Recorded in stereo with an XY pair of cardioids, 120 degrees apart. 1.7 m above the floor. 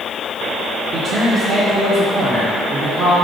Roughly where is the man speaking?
Ahead right.